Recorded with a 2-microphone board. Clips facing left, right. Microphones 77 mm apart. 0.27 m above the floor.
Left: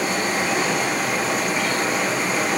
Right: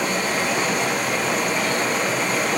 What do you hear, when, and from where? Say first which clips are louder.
0.0 s running water: even; 5° left (ahead or behind), 5 m